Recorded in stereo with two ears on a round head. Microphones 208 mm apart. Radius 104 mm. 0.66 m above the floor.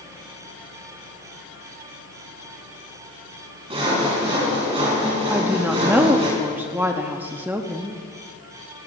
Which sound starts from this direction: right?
Sawing, at 3.7 s.